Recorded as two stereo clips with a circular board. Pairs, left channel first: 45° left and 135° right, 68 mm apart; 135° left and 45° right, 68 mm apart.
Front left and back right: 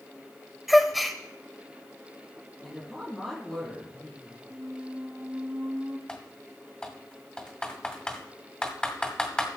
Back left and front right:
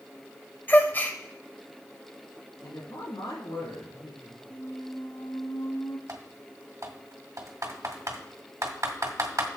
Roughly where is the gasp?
Behind left.